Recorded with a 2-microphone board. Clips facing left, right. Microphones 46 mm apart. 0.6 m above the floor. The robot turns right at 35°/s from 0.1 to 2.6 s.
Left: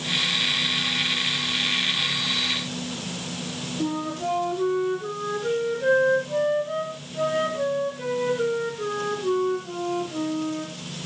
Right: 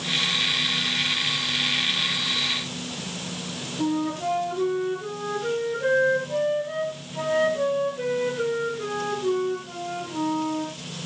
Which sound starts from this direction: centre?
A flute, at 3.8 s.